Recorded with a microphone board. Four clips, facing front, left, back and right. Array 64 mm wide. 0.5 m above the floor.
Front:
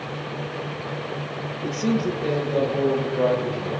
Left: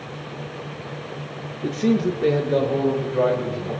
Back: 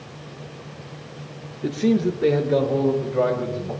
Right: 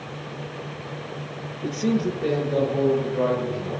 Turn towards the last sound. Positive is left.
turn(degrees=145)